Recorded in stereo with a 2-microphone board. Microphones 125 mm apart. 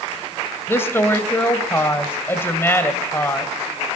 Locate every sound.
0.7 s a woman speaking: 20° left (ahead or behind), 1.5 m